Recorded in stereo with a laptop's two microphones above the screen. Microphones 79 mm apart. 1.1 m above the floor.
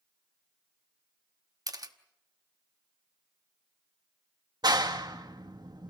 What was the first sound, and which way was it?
A camera shutter, 55° right (ahead or behind).